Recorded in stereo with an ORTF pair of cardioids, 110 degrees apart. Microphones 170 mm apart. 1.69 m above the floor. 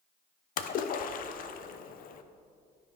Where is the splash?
55° left, 0.6 m.